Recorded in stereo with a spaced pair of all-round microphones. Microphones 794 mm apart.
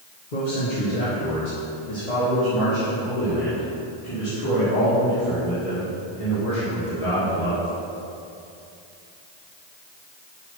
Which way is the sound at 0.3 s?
75° left (ahead or behind).